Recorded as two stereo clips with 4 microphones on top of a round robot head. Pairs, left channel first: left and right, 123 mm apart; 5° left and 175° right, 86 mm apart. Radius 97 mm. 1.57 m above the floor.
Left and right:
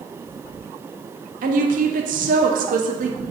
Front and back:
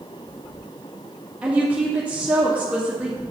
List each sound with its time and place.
1.4 s a woman speaking: 100° right, 1.2 m